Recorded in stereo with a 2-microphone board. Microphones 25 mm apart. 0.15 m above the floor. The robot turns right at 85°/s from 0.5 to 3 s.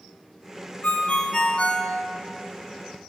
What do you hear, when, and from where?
0.8 s a ringtone: 60° left, 0.6 m; by 1.9 s 150° left, 0.6 m